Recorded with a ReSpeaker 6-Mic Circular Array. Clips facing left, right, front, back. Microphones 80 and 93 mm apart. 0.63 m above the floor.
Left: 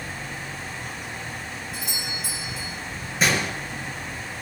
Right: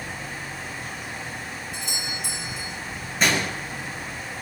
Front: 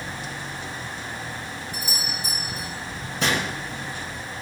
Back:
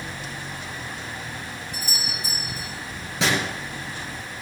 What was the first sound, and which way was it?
A doorbell, 175° left.